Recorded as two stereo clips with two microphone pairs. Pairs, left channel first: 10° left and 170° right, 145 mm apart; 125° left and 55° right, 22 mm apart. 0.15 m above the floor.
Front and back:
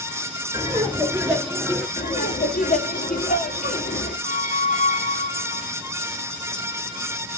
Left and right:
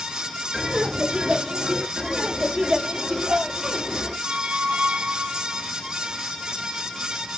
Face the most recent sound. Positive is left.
turn(degrees=-20)